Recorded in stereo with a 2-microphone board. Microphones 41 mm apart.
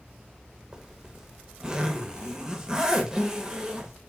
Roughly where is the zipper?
Centre.